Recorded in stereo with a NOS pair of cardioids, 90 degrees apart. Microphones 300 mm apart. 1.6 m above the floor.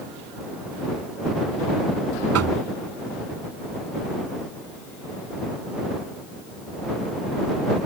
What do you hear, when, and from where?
2.3 s knocking: 55° right